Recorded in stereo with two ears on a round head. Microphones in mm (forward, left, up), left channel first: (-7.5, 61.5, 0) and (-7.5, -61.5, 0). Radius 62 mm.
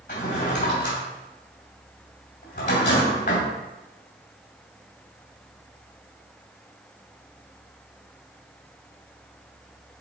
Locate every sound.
0.1 s a drawer: 60° left (ahead or behind), 3 m